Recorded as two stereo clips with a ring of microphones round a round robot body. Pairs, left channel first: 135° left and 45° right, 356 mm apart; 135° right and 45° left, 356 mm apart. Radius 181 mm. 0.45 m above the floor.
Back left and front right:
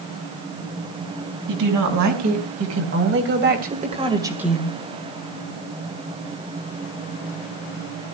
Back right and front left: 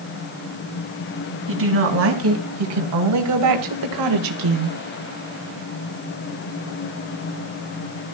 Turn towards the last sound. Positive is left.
turn(degrees=50)